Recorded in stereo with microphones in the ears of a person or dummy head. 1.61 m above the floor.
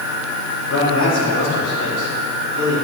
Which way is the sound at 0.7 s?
65° left (ahead or behind).